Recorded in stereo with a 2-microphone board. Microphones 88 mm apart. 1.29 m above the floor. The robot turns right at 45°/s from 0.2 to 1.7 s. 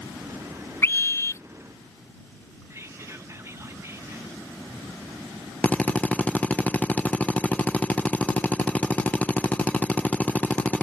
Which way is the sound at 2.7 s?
35° right (ahead or behind).